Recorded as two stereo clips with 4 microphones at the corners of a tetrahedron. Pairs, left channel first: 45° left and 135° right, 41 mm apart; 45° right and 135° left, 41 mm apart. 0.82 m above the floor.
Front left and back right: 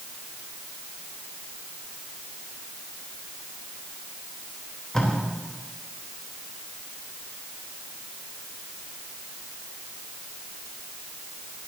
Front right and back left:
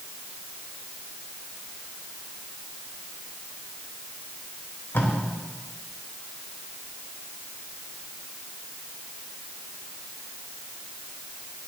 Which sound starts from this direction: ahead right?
Tape being pulled, at 4.9 s.